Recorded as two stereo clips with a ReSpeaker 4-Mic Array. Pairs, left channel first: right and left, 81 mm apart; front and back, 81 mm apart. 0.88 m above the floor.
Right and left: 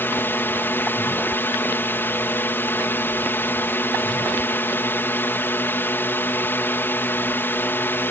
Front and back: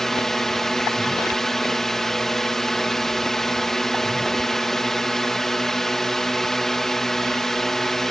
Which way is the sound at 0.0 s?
80° right.